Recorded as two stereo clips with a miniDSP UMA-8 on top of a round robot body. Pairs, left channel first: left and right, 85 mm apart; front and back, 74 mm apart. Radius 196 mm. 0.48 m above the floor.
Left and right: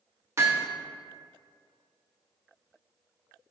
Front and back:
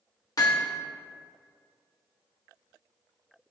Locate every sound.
0.4 s hammering: 35° right, 1.6 m